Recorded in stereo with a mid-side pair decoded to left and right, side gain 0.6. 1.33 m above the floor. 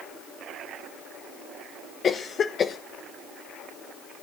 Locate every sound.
2.0 s a cough: 40° left, 0.8 m